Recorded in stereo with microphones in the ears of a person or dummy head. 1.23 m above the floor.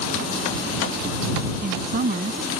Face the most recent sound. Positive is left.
turn(degrees=-45)  # may be behind; listen again after turning